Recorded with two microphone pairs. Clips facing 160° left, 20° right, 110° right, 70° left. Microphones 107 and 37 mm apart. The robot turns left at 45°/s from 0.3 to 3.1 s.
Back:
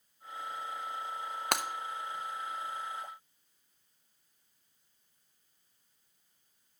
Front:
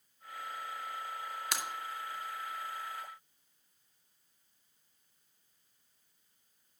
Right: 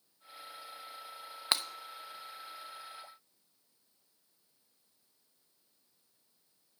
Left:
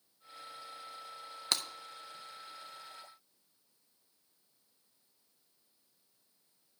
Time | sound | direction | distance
1.5 | breaking glass | straight behind | 0.7 m